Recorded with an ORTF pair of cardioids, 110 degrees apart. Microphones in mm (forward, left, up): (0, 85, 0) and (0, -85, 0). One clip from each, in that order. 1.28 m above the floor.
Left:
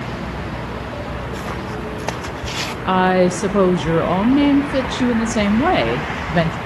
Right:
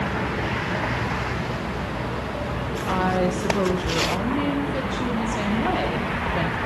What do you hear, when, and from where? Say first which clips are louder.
2.9 s a woman speaking: left 8 dB; 45° left, 0.6 m